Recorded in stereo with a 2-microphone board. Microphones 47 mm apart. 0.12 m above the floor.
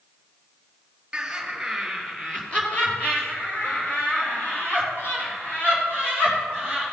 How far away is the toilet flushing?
I don't hear a toilet flushing.